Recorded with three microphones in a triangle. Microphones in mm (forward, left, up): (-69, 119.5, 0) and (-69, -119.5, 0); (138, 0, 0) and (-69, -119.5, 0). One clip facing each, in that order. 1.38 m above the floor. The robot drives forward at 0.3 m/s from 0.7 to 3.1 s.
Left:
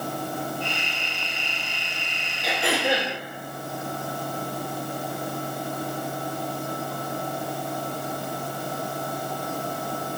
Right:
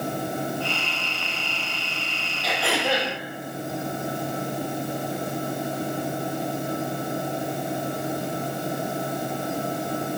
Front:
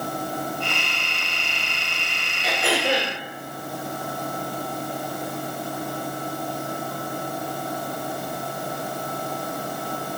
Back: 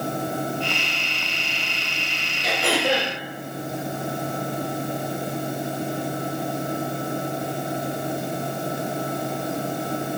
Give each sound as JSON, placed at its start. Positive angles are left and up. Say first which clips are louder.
{"t": 2.4, "sound": "throat clearing", "louder": "left 1 dB, back 1 dB", "azimuth_deg": 160, "distance_m": 0.9}